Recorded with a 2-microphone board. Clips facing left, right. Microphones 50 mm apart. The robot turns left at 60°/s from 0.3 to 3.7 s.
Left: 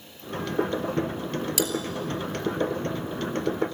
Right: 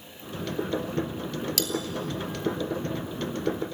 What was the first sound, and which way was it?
Cutlery clinking, 15° left (ahead or behind).